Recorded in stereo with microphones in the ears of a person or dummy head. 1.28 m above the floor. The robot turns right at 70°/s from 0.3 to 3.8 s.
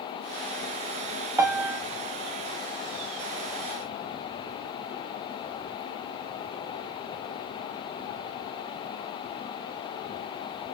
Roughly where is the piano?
Centre.